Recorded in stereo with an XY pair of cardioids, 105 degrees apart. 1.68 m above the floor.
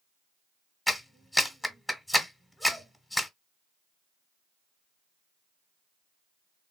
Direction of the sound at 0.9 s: 10° left.